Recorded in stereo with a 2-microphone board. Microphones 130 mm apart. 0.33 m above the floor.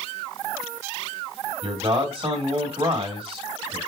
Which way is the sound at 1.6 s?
45° right (ahead or behind).